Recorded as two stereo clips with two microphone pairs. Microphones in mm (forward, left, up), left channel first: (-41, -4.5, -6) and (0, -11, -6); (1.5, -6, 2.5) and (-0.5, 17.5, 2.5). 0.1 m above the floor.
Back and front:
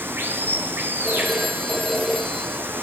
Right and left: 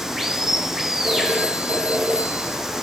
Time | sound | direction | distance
0.0 | running water | 25° left | 2 m
1.0 | a phone ringing | 85° left | 2 m